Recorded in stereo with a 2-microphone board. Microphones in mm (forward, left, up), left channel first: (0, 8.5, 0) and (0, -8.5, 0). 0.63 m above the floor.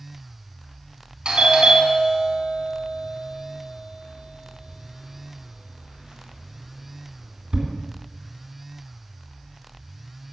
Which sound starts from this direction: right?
A doorbell, at 1.2 s.